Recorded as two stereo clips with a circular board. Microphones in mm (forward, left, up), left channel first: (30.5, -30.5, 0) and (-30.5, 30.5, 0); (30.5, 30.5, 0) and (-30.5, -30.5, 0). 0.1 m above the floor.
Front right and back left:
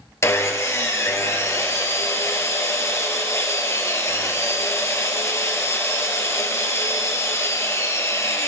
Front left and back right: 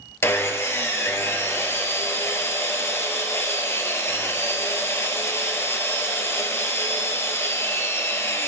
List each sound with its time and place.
0.2 s sawing: 5° right, 1.3 m